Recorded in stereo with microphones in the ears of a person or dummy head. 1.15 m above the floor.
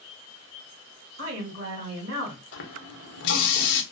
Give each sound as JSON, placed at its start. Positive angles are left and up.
{"t": 1.2, "sound": "a woman speaking", "side_deg": -60, "distance_m": 1.8}
{"t": 2.5, "sound": "a running tap", "side_deg": 65, "distance_m": 0.6}